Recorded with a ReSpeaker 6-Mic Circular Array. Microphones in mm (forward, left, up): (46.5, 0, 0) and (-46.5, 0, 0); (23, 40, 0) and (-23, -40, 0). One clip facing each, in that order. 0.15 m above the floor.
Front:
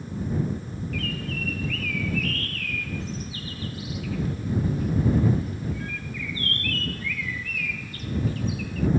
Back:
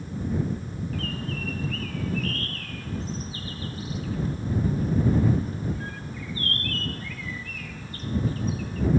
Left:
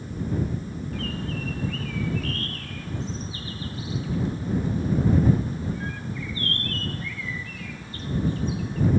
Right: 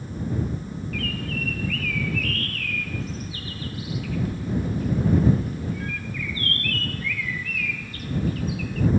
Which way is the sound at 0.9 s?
125° left.